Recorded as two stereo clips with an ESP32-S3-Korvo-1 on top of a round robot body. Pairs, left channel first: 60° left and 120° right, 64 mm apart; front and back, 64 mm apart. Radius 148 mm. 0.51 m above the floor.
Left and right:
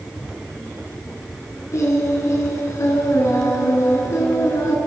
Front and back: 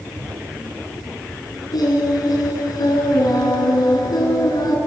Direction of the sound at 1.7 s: 15° left.